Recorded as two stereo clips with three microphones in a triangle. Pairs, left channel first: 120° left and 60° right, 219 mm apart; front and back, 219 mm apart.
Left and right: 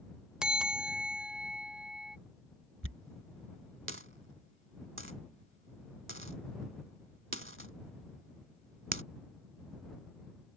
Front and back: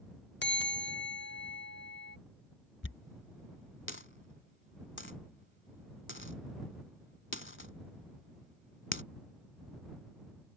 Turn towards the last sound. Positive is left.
turn(degrees=-30)